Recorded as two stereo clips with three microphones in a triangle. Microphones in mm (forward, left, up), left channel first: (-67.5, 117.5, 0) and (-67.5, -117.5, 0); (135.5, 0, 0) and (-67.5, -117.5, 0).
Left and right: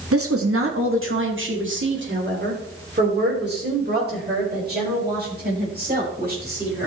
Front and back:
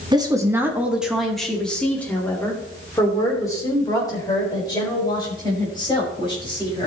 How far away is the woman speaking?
About 1.3 m.